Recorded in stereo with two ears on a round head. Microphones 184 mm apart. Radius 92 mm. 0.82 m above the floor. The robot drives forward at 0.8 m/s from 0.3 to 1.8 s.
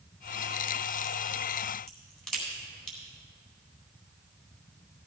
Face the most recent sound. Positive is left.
turn(degrees=0)  # may be behind; listen again after turning